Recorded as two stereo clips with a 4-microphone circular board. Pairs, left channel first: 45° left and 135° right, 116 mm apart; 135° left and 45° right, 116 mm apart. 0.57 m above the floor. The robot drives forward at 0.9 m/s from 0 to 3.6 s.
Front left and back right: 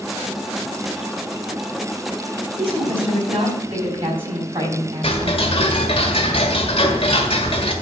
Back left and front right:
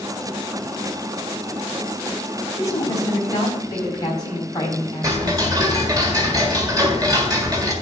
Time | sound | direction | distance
2.6 | a woman speaking | 165° right | 3 m
5.0 | ticking | 10° left | 1.5 m